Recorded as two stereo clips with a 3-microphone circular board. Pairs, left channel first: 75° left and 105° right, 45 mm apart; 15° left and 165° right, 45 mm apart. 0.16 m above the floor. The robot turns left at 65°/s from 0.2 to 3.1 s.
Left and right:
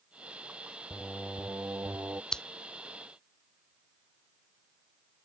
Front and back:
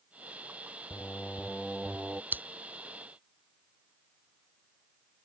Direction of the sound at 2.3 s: 155° left.